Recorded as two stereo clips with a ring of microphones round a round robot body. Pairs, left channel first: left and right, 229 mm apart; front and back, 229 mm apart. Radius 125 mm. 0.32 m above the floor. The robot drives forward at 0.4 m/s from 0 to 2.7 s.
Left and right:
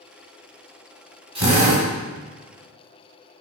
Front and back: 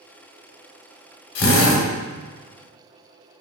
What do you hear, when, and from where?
1.4 s a drill: 25° right, 1.0 m; by 1.9 s 30° right, 0.9 m